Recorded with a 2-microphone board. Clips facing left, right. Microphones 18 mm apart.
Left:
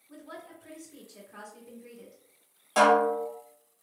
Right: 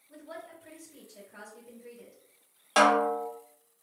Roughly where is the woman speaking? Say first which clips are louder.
Right 1 dB; left.